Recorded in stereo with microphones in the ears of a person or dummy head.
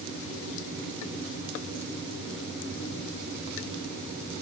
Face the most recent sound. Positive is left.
No sound to turn to.